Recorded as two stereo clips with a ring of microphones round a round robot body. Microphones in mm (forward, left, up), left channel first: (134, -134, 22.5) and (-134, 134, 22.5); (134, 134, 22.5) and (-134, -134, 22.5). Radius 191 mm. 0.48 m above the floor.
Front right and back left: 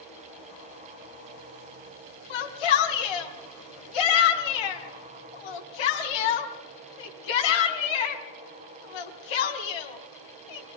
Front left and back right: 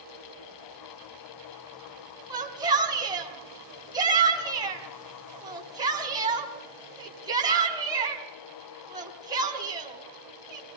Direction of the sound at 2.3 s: 55° right.